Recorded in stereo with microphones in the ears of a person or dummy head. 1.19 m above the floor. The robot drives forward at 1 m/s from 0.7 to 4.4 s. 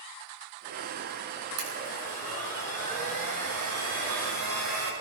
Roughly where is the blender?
Right.